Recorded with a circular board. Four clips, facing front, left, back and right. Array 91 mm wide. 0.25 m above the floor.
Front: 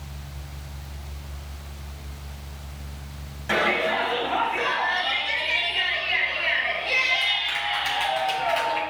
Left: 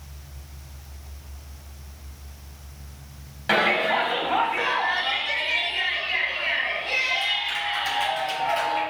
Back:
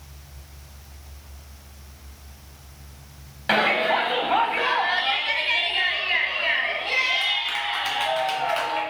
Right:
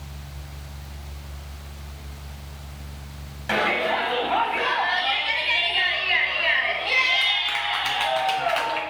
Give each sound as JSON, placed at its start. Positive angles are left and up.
{"t": 3.5, "sound": "a shout", "azimuth_deg": 160, "distance_m": 1.4}